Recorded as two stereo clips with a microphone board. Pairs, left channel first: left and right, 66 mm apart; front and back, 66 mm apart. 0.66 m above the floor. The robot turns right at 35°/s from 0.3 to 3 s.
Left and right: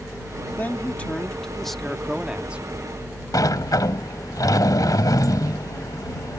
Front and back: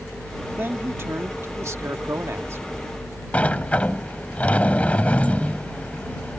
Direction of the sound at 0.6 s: 135° left.